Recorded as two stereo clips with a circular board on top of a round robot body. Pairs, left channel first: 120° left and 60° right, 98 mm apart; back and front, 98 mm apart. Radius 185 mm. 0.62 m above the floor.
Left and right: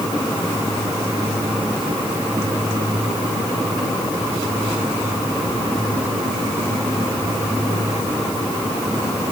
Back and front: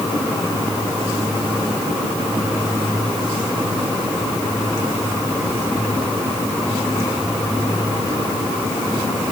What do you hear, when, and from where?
Only background noise.